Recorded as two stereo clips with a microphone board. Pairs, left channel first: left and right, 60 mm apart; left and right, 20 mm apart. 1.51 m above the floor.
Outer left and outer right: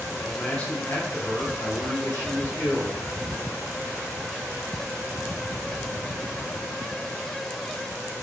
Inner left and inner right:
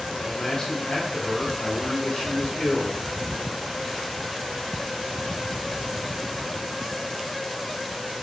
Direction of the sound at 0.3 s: 10° left (ahead or behind).